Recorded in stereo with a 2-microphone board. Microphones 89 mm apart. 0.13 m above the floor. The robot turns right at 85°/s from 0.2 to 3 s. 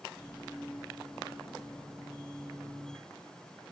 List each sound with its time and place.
Only background noise.